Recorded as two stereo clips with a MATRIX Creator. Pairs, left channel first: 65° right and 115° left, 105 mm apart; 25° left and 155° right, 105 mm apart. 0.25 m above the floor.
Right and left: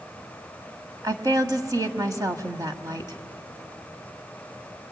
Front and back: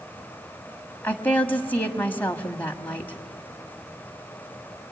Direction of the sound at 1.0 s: 85° left.